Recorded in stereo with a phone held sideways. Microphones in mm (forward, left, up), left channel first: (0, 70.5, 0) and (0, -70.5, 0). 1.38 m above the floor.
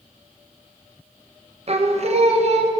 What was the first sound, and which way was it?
Singing, 45° right (ahead or behind).